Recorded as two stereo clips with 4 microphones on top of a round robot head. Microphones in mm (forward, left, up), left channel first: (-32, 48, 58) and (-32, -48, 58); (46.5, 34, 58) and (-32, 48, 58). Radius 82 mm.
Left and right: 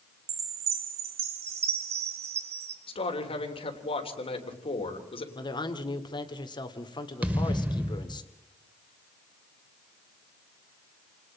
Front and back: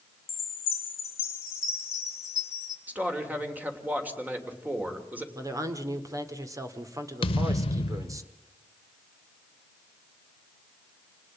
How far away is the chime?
About 2.0 m.